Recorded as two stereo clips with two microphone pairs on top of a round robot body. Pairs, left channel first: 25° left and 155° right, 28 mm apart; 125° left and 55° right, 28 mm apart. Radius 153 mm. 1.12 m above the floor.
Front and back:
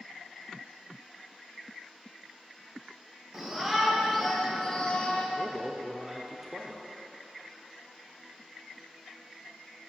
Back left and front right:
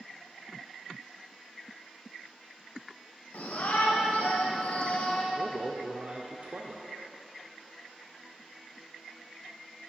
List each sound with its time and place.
3.3 s a shout: 125° left, 1.4 m; by 5.2 s 75° left, 0.9 m
5.3 s a man speaking: 65° right, 0.7 m